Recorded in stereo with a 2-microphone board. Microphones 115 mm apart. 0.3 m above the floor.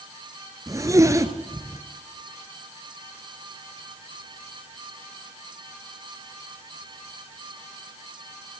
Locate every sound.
0.7 s a zipper: 25° right (ahead or behind), 1.4 m